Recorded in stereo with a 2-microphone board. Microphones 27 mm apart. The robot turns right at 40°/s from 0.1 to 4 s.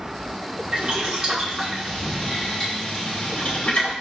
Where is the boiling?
40° right (ahead or behind), 1.3 m; by 3.9 s 55° left (ahead or behind), 1.3 m.